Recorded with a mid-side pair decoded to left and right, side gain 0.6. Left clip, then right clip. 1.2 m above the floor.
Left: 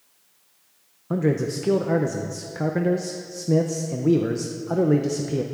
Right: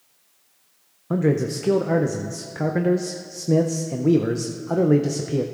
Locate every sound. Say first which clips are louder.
1.1 s a man speaking: right 2 dB; 10° right, 0.5 m